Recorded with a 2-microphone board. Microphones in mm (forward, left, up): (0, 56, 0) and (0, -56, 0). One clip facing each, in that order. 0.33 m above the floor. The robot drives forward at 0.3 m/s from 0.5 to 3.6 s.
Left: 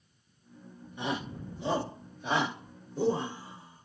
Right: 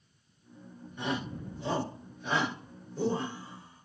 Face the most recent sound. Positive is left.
turn(degrees=15)  # may be behind; listen again after turning